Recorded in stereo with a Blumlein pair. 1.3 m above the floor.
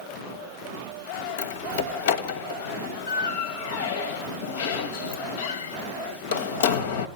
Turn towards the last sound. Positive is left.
turn(degrees=55)